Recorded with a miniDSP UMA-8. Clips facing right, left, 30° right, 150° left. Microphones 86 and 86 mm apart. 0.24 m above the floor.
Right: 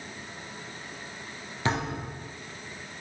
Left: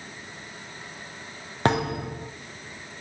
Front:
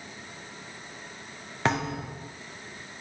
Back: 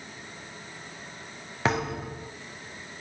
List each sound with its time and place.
1.6 s a thud: 60° left, 2.5 m